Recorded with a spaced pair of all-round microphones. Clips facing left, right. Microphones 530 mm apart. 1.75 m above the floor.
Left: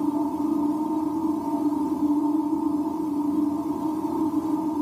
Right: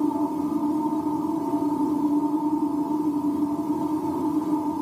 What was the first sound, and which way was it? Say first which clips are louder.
A machine running: even; 85° right.